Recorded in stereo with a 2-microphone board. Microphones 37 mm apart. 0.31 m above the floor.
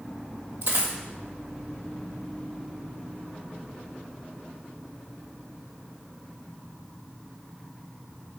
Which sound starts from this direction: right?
A dropped coin, at 0.6 s.